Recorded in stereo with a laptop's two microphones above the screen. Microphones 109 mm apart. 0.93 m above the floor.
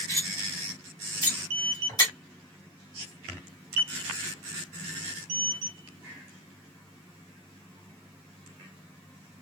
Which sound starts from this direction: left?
Cutlery clinking, at 0.1 s.